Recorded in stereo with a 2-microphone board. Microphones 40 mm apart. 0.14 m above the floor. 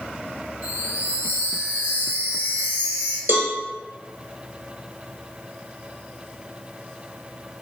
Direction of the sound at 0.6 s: 40° right (ahead or behind).